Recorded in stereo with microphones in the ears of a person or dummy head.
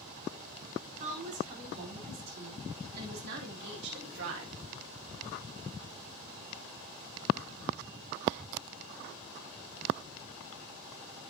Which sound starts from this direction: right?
A woman speaking, at 0.9 s.